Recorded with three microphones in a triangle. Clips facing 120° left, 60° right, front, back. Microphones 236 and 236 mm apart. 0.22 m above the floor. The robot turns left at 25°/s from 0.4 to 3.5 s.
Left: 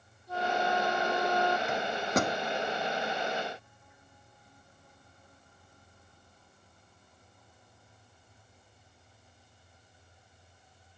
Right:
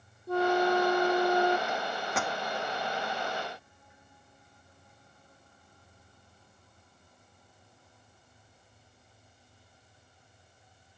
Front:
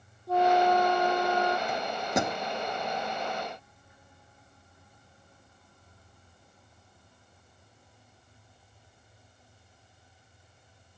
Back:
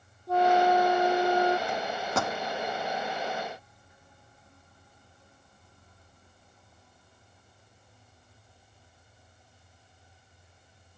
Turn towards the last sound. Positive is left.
turn(degrees=40)